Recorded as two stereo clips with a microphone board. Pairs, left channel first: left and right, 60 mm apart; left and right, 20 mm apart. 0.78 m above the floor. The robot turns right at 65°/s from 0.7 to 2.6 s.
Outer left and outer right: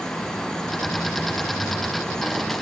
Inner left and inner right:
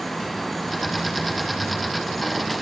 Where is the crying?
No crying in this recording.